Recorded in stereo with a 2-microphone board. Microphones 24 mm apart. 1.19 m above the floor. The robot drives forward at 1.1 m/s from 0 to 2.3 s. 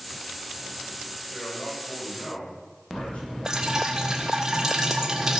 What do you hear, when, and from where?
1.3 s a man speaking: 60° left (ahead or behind), 6.5 m; by 3.4 s 70° left (ahead or behind), 6 m
3.5 s dripping: 25° right (ahead or behind), 1.8 m